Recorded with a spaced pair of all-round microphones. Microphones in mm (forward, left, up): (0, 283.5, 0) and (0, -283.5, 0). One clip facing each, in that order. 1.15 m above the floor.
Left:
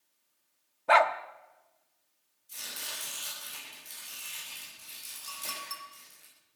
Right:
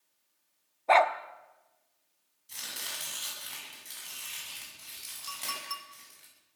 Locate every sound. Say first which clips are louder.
0.9 s a dog barking: right 1 dB; 35° left (ahead or behind), 1.0 m
2.5 s chopping: even; 85° right, 9.5 m
5.3 s a clink: right 1 dB; 75° right (ahead or behind), 2 m